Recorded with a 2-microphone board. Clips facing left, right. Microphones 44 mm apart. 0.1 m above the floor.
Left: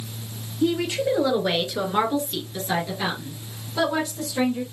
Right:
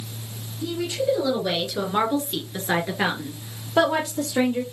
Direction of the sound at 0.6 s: 45° left (ahead or behind).